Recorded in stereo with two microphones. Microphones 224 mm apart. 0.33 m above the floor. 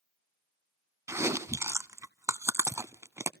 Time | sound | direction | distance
1.1 | chewing | 10° right (ahead or behind) | 0.5 m